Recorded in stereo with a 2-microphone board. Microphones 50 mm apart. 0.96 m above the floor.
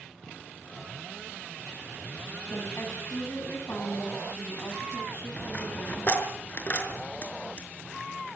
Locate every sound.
2.5 s a woman speaking: 55° left (ahead or behind), 9.5 m
5.4 s a dropped coin: 35° left (ahead or behind), 5 m